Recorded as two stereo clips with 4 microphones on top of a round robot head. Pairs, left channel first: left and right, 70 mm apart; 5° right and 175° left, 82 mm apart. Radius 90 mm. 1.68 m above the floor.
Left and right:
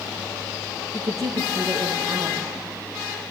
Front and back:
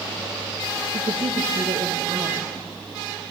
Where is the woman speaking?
135° right, 1.5 m.